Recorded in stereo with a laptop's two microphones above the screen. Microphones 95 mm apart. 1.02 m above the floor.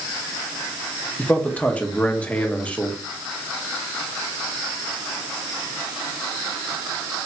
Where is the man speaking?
15° left (ahead or behind), 1.1 m.